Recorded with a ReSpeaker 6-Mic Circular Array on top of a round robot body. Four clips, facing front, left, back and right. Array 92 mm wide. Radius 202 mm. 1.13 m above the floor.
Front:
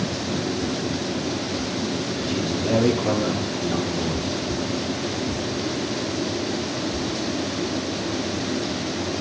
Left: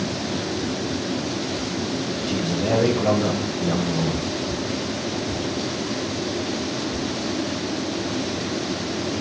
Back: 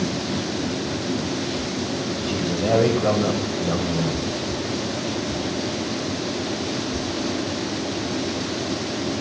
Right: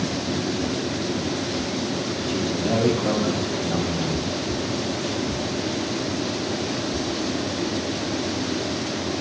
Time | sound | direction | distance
2.3 | a man speaking | 155° left | 5.5 m